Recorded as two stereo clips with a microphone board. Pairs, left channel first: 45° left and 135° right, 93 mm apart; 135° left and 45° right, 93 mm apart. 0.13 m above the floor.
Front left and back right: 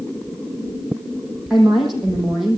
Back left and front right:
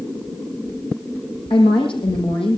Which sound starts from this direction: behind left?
A woman speaking, at 1.5 s.